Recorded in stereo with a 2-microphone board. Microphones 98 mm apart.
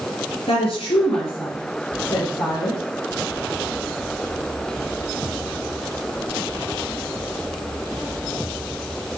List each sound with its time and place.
0.5 s a woman speaking: 80° left, 5.5 m